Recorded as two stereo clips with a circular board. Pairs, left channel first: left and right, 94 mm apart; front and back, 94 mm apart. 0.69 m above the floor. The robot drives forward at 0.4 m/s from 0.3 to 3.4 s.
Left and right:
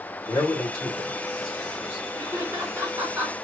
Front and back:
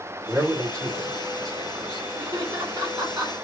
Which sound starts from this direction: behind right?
Laughter, at 2.2 s.